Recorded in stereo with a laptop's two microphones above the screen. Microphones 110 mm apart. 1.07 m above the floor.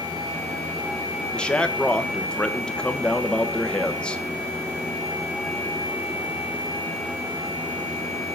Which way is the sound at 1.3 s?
10° left (ahead or behind).